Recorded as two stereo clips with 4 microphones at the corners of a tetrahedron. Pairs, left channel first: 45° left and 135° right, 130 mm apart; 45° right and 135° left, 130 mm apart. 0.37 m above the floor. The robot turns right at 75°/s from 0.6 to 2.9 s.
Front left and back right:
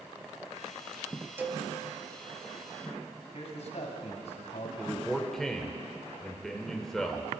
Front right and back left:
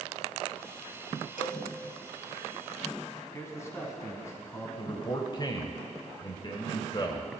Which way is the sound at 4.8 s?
40° right.